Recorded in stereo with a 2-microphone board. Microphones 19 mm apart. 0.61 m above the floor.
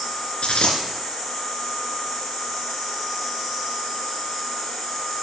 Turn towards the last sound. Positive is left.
turn(degrees=80)